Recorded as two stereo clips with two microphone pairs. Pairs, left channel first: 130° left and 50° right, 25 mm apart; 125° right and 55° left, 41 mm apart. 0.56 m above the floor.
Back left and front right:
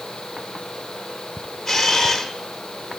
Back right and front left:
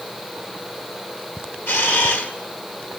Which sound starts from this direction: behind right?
A camera shutter, at 1.7 s.